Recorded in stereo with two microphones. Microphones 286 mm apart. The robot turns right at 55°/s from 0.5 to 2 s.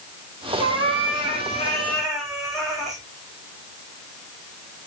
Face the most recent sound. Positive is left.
turn(degrees=180)